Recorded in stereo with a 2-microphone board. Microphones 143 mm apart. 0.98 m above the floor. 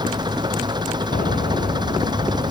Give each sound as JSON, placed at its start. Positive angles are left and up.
{"t": 0.0, "sound": "an engine running", "side_deg": -30}
{"t": 1.1, "sound": "a piano", "side_deg": 85}